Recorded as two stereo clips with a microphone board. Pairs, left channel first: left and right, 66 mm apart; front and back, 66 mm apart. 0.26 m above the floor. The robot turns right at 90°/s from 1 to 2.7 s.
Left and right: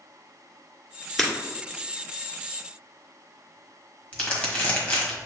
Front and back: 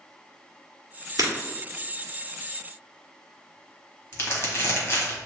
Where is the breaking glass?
170° left, 1.3 m; by 1.3 s straight behind, 1.3 m.